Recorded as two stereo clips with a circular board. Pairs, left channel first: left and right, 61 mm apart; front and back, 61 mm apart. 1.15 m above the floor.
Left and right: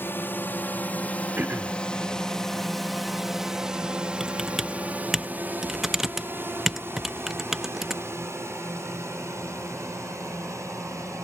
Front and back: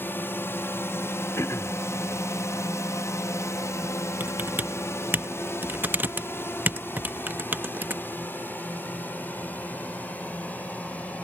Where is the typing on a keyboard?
170° right.